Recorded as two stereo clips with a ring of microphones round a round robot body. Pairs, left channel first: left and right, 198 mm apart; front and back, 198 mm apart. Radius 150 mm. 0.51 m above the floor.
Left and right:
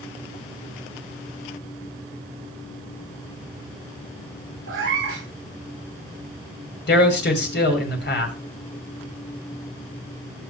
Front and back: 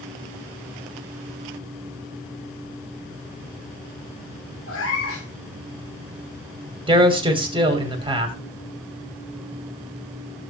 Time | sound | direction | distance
4.7 | a cat meowing | 45° right | 10 m
6.9 | a man speaking | 115° left | 3 m